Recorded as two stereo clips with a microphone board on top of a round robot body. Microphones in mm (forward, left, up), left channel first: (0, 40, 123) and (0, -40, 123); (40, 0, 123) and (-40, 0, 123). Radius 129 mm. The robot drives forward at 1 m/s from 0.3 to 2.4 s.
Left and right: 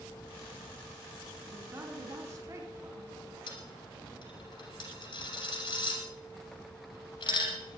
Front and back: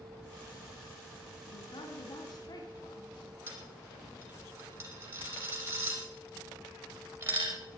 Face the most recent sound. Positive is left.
turn(degrees=120)